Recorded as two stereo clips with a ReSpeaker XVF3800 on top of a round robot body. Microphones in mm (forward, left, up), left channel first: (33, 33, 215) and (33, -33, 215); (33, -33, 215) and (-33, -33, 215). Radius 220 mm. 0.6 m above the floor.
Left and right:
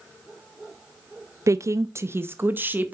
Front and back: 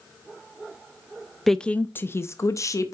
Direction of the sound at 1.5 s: 85° right.